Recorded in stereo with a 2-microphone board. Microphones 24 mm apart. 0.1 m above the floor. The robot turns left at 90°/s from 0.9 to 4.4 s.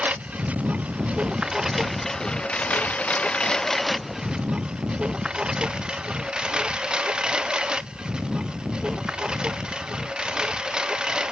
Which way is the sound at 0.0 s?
85° right.